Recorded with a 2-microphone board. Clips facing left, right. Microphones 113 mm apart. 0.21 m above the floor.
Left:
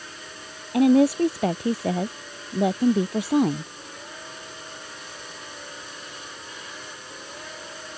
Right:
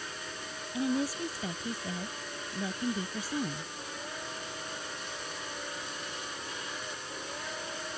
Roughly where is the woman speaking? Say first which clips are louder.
Left 14 dB; left.